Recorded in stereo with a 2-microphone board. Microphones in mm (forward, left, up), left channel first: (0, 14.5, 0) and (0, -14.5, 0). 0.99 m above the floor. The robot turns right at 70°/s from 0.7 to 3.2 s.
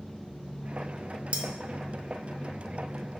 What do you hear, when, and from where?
1.3 s cutlery clinking: 45° right (ahead or behind), 0.5 m; by 1.4 s 55° right (ahead or behind), 0.5 m